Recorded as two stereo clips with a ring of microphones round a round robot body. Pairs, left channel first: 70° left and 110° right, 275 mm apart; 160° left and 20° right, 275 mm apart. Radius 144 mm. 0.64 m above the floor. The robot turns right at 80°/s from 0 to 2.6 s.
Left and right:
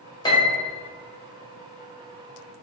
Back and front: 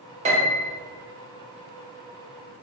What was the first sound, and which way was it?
A piano, 10° left.